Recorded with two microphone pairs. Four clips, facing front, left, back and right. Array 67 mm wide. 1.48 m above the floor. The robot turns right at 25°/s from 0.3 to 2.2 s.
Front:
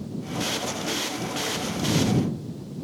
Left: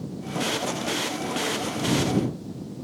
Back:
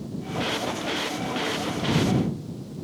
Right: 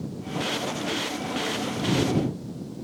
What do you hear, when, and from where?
Only background noise.